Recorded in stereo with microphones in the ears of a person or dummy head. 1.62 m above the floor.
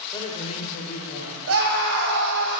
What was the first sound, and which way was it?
A man speaking, 20° left (ahead or behind).